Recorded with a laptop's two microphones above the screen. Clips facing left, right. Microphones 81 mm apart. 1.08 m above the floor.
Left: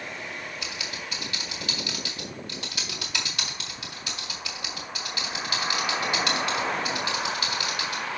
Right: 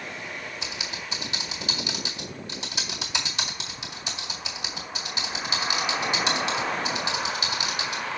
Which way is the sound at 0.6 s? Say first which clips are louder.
Even; 20° right (ahead or behind).